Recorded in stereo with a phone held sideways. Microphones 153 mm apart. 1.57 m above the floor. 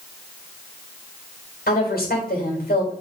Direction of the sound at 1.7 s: 80° left.